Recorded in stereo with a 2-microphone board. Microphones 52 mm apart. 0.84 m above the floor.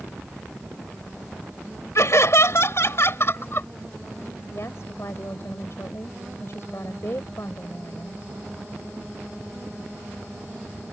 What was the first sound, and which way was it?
Laughter, 65° left (ahead or behind).